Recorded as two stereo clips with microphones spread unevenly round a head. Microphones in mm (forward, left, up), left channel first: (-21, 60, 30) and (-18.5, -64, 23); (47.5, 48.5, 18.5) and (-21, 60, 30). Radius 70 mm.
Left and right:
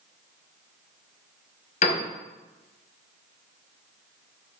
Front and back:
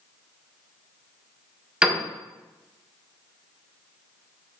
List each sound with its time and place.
1.8 s a piano: 90° left, 1.2 m